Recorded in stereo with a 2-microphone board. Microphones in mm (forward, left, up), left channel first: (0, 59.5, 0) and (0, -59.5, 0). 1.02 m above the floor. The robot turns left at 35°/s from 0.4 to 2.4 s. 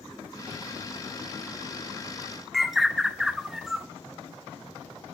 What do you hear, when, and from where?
2.5 s a bird: centre (ahead or behind), 0.7 m